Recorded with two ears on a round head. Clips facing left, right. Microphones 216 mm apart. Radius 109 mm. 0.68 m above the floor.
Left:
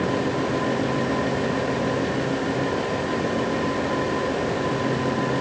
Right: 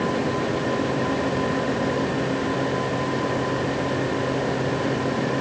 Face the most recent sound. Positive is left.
No sound to turn to.